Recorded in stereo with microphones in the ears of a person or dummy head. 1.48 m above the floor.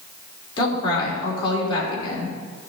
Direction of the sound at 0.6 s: 30° left (ahead or behind).